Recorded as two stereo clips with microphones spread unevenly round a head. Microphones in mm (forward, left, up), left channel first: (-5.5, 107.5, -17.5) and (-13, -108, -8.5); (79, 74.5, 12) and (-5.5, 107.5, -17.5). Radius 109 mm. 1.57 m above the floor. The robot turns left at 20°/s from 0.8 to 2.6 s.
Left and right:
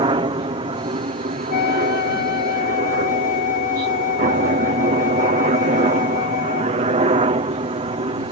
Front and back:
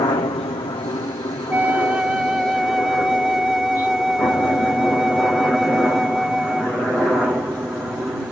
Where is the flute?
75° left; by 6.9 s 50° left.